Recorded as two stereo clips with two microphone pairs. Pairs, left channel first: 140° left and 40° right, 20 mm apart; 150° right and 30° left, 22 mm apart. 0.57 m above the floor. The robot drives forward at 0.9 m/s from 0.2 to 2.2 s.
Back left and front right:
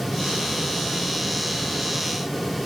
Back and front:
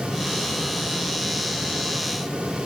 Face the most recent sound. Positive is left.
No sound to turn to.